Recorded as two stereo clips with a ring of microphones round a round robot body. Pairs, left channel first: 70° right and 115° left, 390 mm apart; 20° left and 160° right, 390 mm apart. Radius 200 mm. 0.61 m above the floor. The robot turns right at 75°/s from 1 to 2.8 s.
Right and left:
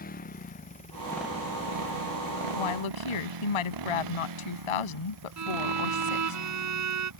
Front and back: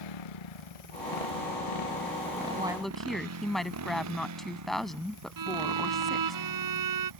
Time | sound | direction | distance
0.0 | a motorcycle | straight ahead | ?
2.5 | a woman speaking | 85° right | ?
5.4 | a violin | 160° left | ?